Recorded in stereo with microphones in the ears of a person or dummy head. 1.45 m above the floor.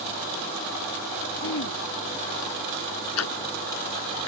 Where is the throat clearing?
80° left.